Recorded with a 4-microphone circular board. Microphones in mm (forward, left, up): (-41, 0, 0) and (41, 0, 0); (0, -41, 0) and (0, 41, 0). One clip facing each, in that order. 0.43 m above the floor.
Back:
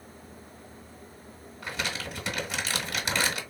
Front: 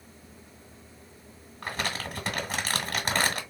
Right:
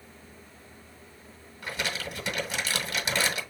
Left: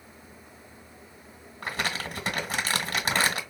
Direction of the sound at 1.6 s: 45° left.